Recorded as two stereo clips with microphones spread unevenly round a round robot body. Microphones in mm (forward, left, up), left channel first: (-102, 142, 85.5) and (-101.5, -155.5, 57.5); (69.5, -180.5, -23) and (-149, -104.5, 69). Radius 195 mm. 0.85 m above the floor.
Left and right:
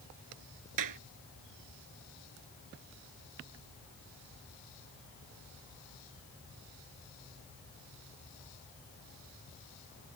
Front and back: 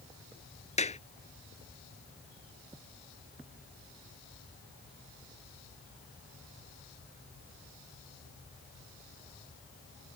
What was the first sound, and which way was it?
A clap, 80° right.